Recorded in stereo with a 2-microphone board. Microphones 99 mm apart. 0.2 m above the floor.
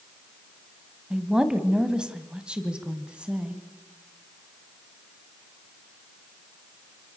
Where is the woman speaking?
5° right (ahead or behind), 1.5 m; by 3.6 s 10° right (ahead or behind), 1.8 m.